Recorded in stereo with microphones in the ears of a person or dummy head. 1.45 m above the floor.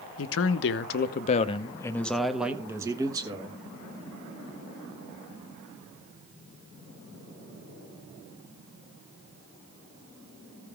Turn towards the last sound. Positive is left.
turn(degrees=-25)  # may be behind; listen again after turning